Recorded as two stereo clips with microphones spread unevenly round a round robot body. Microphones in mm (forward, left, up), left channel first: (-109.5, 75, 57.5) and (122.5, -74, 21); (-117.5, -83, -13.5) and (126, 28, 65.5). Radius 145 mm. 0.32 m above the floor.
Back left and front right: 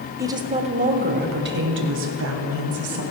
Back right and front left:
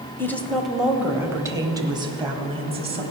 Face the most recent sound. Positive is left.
turn(degrees=-50)